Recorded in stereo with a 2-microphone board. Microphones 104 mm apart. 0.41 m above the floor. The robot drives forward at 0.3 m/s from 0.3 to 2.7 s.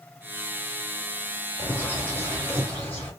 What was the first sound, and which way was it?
A bird, 20° left (ahead or behind).